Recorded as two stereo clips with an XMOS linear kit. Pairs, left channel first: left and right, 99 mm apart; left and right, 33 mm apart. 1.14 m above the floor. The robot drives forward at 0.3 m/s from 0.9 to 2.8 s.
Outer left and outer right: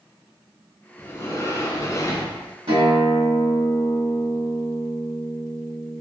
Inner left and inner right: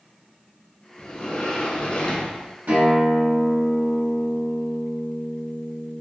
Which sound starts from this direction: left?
A sliding door, at 1.0 s.